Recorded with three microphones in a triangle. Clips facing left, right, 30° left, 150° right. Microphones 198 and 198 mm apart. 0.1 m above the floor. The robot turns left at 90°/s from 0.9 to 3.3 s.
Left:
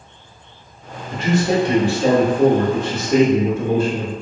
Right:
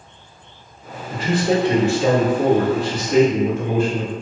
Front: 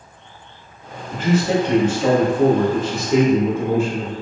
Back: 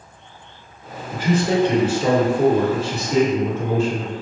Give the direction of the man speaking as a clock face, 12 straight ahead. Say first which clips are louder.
Left 1 dB, front 1 dB; 2 o'clock.